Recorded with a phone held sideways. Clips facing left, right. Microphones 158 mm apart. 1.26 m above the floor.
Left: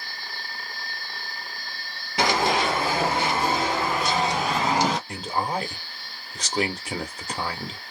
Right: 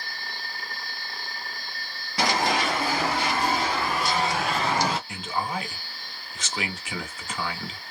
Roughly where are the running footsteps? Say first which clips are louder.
Left 2 dB; left.